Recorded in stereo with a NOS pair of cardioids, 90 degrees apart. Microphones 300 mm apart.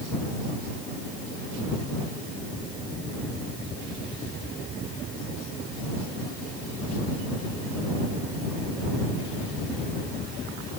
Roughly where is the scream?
No scream in this recording.